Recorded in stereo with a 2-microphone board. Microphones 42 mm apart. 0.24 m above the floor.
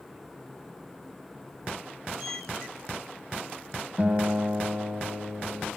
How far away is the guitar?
About 1.5 m.